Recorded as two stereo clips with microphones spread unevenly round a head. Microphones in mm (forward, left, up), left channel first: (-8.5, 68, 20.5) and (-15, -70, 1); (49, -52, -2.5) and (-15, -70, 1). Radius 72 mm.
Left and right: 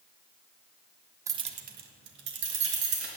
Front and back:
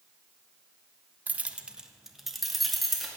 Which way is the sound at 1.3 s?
155° right.